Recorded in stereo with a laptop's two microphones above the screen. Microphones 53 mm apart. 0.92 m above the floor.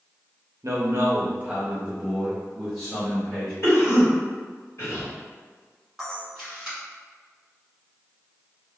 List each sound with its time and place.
0.6 s a man speaking: 60° right (ahead or behind), 0.6 m; by 3.5 s 10° left (ahead or behind), 1.5 m
3.6 s a cough: 60° left (ahead or behind), 1.6 m
6.0 s a camera shutter: 5° right (ahead or behind), 1.3 m